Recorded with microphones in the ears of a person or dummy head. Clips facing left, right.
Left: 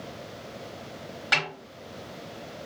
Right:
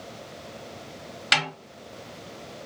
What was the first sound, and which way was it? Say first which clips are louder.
A snare drum: right 2 dB; 35° right (ahead or behind).